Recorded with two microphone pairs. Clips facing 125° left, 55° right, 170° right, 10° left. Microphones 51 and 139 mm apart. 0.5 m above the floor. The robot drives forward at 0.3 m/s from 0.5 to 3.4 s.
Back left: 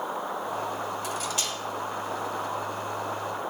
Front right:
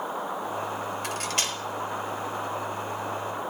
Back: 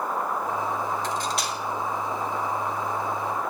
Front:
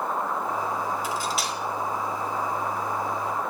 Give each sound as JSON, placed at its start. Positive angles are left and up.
{"t": 1.0, "sound": "cutlery clinking", "azimuth_deg": -70, "distance_m": 1.1}